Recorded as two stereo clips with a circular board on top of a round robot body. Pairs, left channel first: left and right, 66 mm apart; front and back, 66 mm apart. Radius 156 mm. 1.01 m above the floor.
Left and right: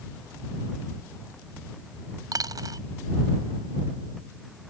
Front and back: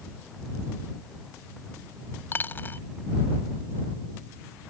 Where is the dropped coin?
60° right.